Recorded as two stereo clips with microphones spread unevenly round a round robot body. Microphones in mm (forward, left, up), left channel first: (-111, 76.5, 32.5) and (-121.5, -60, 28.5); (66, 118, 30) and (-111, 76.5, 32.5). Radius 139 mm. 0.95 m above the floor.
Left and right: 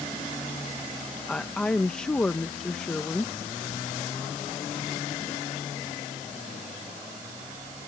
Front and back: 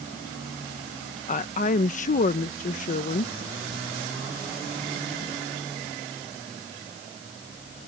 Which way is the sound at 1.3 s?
5° left.